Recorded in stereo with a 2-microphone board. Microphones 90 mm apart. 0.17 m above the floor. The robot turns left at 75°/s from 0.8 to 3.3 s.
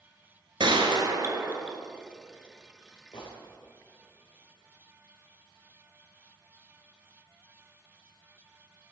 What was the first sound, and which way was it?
A gunshot, 105° right.